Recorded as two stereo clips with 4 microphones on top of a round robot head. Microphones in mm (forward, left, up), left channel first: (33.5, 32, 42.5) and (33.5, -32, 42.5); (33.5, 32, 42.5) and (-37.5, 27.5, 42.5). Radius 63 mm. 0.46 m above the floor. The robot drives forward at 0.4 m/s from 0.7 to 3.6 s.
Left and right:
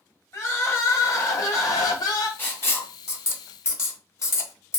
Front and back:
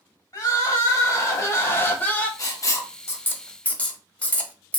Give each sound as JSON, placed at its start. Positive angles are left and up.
{"t": 0.3, "sound": "crying", "azimuth_deg": 45, "distance_m": 1.1}
{"t": 2.4, "sound": "writing", "azimuth_deg": 35, "distance_m": 0.9}